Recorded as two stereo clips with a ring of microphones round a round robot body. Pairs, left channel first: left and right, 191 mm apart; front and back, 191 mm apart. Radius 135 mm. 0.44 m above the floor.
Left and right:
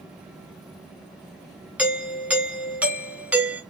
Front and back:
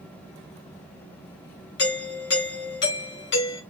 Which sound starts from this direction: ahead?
A doorbell, at 1.8 s.